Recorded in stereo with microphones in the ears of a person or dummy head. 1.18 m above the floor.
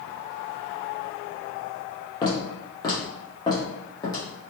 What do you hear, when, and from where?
2.2 s footsteps: 25° left (ahead or behind), 1.3 m; by 4.2 s 20° left (ahead or behind), 2 m